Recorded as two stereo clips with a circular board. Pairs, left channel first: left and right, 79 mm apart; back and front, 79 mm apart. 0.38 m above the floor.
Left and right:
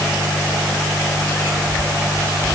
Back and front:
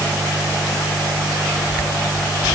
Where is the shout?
No shout in this recording.